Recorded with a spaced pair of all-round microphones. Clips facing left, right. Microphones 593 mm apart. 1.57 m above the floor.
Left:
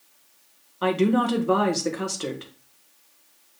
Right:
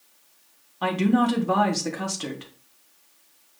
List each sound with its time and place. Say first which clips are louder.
0.8 s a woman speaking: even; 15° right (ahead or behind), 1.5 m